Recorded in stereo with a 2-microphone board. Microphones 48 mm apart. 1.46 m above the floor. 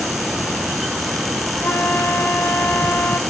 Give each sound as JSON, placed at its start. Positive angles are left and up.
{"t": 1.6, "sound": "a flute", "side_deg": 60, "distance_m": 0.9}